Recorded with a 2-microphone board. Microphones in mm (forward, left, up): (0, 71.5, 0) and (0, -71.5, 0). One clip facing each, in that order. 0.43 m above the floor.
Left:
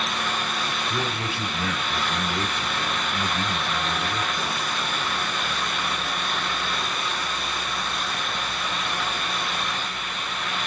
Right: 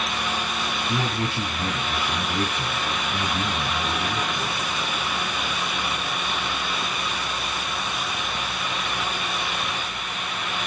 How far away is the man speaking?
About 2 m.